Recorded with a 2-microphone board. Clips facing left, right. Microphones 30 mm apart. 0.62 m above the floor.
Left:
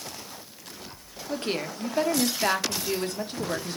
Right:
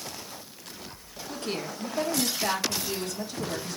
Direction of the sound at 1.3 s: 35° left (ahead or behind).